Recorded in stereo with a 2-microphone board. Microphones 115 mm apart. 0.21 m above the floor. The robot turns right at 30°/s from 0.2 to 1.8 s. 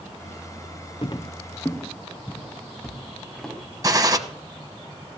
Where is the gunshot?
35° right (ahead or behind), 1.0 m.